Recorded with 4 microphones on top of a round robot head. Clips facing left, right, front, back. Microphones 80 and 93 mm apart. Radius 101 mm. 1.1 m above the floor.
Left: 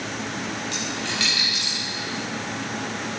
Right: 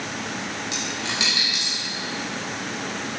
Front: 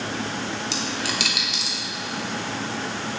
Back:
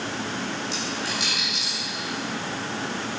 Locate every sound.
0.7 s a dropped coin: 10° right, 1.1 m